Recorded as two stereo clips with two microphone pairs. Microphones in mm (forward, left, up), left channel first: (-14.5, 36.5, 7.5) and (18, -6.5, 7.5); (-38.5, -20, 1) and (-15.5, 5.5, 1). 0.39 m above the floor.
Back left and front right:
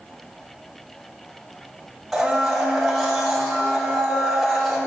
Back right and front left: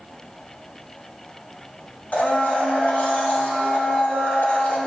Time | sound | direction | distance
2.1 | a blender | 140° right | 2 m